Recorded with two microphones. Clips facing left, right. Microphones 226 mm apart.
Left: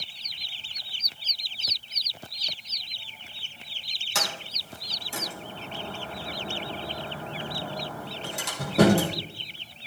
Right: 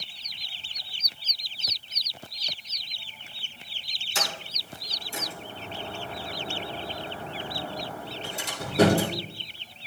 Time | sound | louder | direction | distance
4.2 | a sliding door | even | 75° left (ahead or behind) | 3 m